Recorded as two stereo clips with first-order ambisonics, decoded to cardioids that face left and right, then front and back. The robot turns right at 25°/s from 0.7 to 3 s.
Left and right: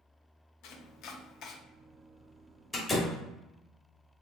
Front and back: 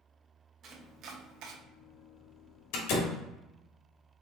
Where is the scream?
No scream in this recording.